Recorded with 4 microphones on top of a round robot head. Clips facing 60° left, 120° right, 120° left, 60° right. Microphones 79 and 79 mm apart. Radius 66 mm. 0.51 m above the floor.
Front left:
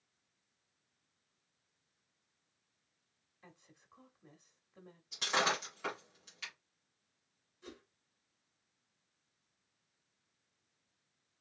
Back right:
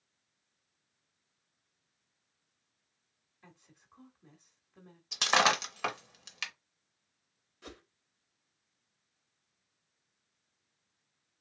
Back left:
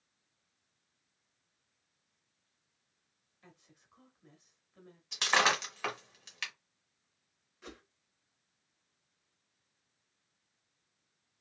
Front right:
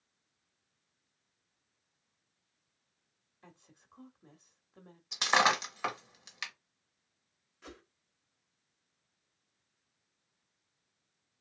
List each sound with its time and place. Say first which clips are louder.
3.4 s a woman speaking: back right 1 dB, front right 2 dB; 25° right, 1.1 m
5.1 s breaking glass: back right 7 dB, front right 2 dB; 130° right, 1.3 m
7.6 s a whoosh: back right 3 dB, back left 1 dB; 150° right, 1.2 m